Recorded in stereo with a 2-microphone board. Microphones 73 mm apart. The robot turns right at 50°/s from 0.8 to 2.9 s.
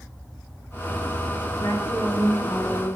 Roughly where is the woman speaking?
Left.